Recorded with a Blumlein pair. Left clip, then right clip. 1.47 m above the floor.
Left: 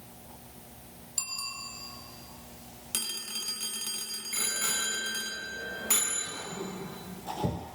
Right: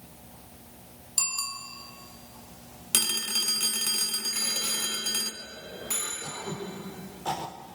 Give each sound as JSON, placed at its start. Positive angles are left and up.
{"t": 1.2, "sound": "a bicycle bell", "azimuth_deg": -70, "distance_m": 3.0}
{"t": 2.9, "sound": "a phone ringing", "azimuth_deg": -25, "distance_m": 1.1}
{"t": 4.3, "sound": "a bicycle bell", "azimuth_deg": 20, "distance_m": 8.5}
{"t": 6.2, "sound": "throat clearing", "azimuth_deg": -55, "distance_m": 5.5}